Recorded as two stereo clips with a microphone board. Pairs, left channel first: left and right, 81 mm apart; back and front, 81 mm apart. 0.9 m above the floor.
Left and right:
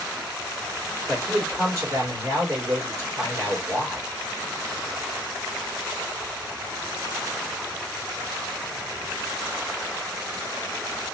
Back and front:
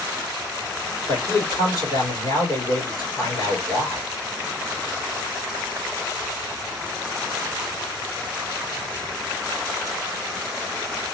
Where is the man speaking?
145° right, 2 m.